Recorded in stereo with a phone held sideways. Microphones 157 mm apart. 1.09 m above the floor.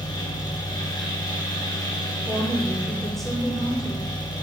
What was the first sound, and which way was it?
A fan, 30° left (ahead or behind).